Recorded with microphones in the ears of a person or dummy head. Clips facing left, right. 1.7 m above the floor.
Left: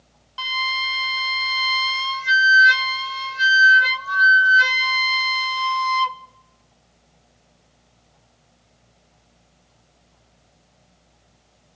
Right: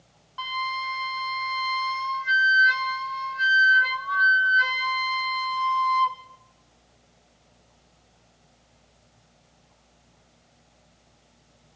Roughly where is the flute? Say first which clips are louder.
Left 1 dB; left.